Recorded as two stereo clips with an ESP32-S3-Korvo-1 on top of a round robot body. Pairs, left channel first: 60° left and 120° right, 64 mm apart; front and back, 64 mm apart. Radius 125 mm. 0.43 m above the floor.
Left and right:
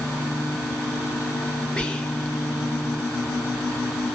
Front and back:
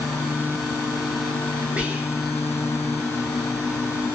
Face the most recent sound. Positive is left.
turn(degrees=125)